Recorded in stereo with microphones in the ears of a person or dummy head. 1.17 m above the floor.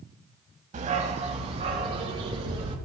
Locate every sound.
0.7 s a dog barking: 50° right (ahead or behind), 1.8 m; by 2.8 s 35° right (ahead or behind), 4 m